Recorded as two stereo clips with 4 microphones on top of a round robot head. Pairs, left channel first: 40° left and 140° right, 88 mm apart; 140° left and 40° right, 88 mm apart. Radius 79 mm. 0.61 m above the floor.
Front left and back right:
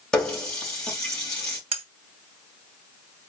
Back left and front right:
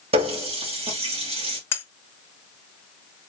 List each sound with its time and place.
0.1 s a running tap: 40° right, 2.5 m
1.7 s cutlery clinking: 155° right, 1.1 m